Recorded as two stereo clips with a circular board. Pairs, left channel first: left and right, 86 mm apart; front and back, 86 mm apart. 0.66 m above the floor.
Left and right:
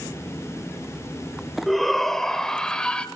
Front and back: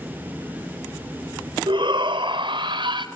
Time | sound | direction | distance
1.7 | a shout | straight behind | 3 m